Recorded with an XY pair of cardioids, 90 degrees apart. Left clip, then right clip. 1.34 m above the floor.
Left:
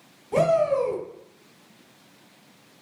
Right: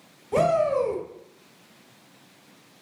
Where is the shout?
5° right, 1.0 m.